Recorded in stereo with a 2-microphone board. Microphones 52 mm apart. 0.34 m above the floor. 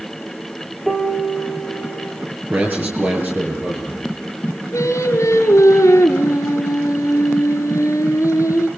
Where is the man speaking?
40° right (ahead or behind), 8.5 m.